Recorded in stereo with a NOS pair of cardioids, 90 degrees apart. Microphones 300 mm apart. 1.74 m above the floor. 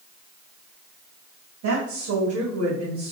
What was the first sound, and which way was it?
A woman speaking, 70° right.